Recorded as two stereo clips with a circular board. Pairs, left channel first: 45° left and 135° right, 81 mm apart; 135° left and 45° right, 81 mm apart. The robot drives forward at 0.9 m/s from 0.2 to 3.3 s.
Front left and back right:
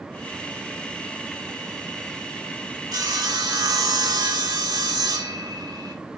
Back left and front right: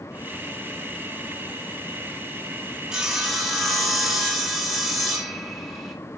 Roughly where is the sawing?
Behind right.